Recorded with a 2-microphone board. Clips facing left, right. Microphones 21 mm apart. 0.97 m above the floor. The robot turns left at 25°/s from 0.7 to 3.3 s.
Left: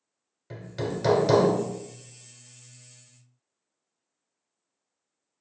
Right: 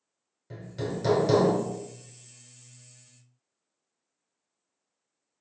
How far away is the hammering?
About 0.8 m.